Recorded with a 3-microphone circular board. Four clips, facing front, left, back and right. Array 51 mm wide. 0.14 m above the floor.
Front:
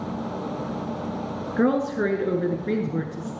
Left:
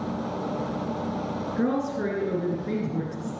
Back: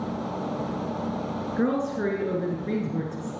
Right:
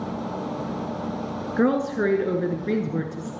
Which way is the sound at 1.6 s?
60° right.